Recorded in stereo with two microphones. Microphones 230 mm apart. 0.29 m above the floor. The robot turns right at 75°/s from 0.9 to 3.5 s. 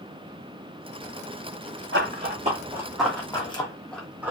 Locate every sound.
1.9 s running footsteps: 55° right (ahead or behind), 1.4 m; by 4.3 s 10° right (ahead or behind), 1.0 m